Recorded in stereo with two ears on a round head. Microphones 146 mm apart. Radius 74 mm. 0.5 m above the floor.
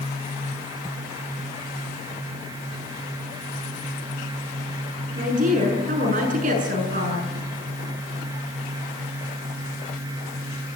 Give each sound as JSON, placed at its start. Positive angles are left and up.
{"t": 5.2, "sound": "a woman speaking", "side_deg": -55, "distance_m": 7.5}